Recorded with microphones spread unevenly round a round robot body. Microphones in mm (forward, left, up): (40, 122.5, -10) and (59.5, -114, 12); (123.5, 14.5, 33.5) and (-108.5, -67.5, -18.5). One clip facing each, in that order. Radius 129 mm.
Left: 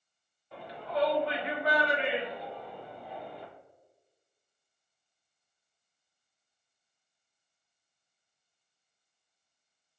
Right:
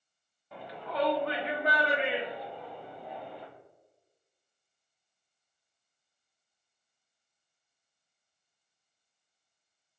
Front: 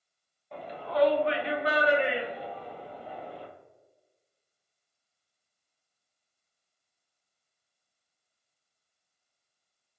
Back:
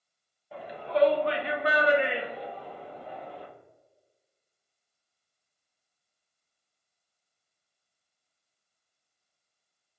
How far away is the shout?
About 0.8 m.